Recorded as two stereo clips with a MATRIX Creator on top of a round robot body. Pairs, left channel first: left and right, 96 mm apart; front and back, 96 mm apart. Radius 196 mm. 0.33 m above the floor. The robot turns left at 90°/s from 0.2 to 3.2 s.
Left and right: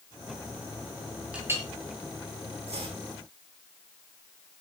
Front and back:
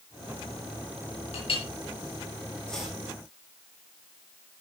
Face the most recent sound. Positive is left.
turn(degrees=-125)